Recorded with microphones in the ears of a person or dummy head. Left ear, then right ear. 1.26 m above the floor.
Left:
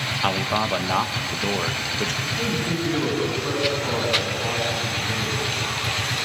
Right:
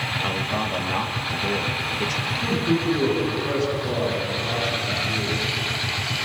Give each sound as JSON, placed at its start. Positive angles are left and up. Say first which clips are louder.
{"t": 0.2, "sound": "a man speaking", "louder": "left 3 dB", "side_deg": 45, "distance_m": 1.7}
{"t": 2.2, "sound": "a man speaking", "louder": "right 1 dB", "side_deg": 55, "distance_m": 8.5}